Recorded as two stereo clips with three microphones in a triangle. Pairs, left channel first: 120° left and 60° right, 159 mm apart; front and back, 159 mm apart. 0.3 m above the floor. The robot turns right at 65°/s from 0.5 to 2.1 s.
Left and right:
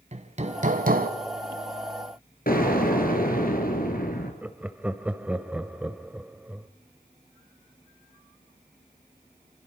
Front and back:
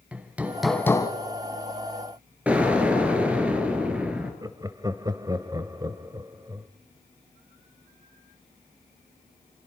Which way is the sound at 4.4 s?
135° right.